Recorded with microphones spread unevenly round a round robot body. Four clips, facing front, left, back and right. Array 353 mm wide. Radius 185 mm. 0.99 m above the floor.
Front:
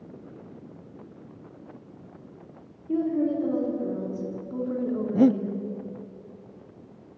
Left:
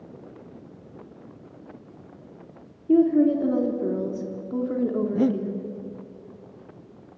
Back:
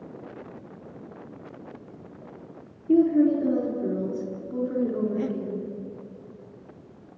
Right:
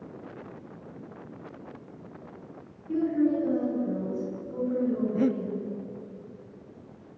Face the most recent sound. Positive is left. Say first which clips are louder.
# left 4 dB, front 9 dB
turn(degrees=5)